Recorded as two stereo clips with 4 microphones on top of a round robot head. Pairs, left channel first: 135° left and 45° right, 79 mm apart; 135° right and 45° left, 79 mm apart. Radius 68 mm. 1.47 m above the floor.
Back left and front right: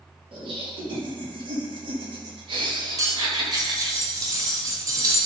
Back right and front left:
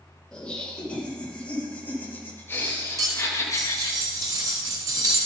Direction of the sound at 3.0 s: Straight ahead.